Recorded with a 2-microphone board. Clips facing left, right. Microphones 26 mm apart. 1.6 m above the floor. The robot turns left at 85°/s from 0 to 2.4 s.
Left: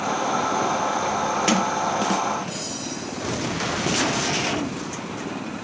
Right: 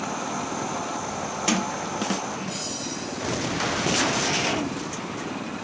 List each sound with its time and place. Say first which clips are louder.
1.5 s a sliding door: left 1 dB; 20° left (ahead or behind), 0.8 m; by 2.6 s 60° right (ahead or behind), 0.8 m